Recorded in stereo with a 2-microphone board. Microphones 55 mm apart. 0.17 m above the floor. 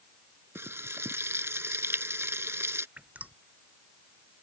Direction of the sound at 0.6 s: 55° right (ahead or behind).